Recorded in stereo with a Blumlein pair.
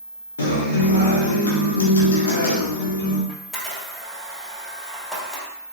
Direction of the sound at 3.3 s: 10° left.